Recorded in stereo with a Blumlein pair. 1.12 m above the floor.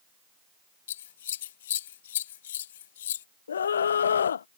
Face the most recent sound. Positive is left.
turn(degrees=70)